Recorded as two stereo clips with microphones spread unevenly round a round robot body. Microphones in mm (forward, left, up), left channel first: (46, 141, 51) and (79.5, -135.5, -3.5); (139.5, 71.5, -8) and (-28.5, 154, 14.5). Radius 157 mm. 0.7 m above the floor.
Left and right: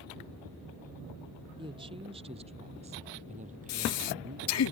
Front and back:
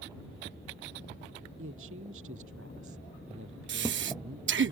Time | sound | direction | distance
1.6 | a woman speaking | 160° right | ?
3.7 | breathing | 140° left | ?